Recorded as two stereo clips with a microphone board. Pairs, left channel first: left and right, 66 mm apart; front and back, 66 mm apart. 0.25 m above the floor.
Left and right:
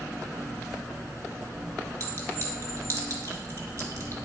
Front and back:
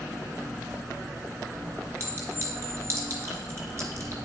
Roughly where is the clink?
Behind right.